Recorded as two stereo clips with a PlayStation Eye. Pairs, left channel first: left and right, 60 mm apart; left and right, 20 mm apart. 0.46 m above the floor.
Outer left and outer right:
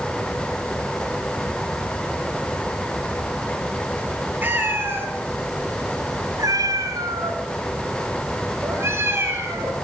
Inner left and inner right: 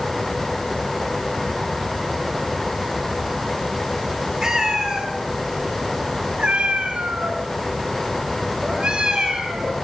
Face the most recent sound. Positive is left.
turn(degrees=-35)  # may be behind; listen again after turning